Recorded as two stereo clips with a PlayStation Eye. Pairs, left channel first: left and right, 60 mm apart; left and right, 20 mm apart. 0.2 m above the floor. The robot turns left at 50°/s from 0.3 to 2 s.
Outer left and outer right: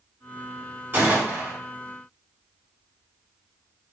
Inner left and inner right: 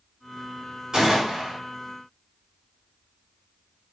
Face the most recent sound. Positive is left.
turn(degrees=-160)